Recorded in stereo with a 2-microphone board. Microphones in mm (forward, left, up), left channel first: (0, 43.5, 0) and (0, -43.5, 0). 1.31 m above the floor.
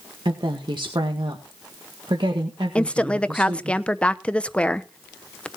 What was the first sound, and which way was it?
A woman speaking, 65° right (ahead or behind).